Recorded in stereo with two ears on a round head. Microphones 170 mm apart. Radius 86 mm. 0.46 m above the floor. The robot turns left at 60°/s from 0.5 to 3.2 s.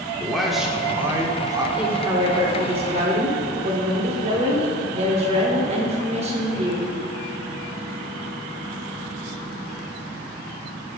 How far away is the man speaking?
About 0.7 m.